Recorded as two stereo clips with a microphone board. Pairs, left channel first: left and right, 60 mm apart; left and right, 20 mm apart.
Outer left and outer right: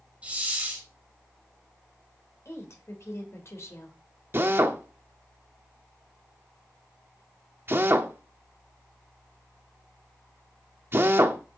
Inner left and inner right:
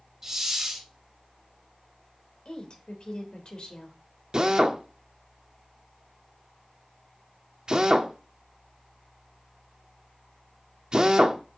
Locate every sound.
0.2 s a hiss: 20° right (ahead or behind), 3 m
2.5 s a woman speaking: 50° left (ahead or behind), 3 m
4.3 s a drill: 40° right (ahead or behind), 1.0 m